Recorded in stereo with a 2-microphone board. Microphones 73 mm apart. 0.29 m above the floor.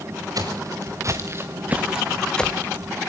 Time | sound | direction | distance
0.3 | footsteps | 60° right (ahead or behind) | 3 m